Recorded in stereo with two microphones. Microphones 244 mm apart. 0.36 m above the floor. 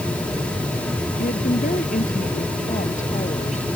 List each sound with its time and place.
1.2 s a woman speaking: 35° left (ahead or behind); by 3.7 s 25° left (ahead or behind)